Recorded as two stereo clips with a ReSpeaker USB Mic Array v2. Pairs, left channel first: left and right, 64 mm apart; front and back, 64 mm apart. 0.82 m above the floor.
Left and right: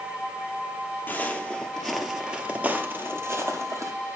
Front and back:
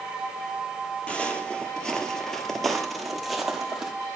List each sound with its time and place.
1.1 s footsteps: 60° left, 0.9 m; by 3.9 s 95° right, 1.3 m